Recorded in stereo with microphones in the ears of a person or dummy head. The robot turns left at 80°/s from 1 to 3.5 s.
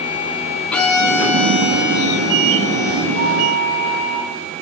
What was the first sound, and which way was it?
A violin, 5° left.